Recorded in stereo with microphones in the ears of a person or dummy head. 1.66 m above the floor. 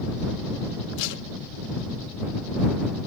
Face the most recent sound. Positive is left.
turn(degrees=70)  # may be behind; listen again after turning